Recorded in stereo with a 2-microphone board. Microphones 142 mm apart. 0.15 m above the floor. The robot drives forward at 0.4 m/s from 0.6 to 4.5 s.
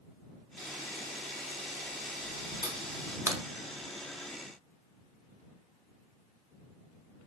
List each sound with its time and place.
0.6 s a camera shutter: 70° right (ahead or behind), 2.5 m; by 3.2 s 65° right (ahead or behind), 2.5 m
3.3 s a crack: 20° right (ahead or behind), 0.6 m; by 3.4 s 25° right (ahead or behind), 0.5 m